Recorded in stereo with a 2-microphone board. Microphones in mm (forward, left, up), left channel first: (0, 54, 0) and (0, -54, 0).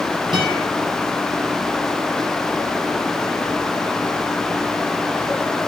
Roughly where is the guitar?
Right.